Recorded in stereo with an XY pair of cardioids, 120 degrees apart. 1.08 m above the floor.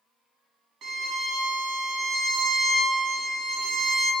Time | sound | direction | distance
0.8 | a violin | 60° right | 1.2 m